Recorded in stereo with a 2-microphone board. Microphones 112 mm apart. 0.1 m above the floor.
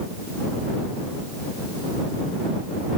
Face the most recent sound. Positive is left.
No sound to turn to.